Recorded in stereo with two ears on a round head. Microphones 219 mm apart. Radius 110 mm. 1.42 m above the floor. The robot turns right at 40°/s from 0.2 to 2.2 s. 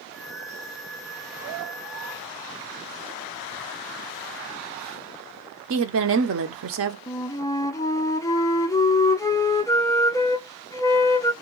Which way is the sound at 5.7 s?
60° right (ahead or behind).